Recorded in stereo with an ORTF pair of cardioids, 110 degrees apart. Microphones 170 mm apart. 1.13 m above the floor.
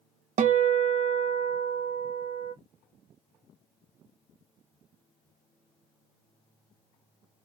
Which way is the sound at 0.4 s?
45° right.